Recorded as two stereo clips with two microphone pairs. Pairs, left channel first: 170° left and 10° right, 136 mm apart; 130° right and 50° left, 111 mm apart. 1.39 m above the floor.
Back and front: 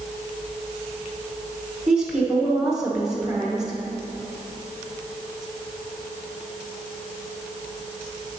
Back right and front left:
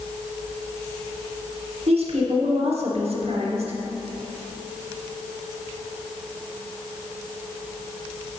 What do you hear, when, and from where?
1.9 s a woman speaking: 75° left, 1.0 m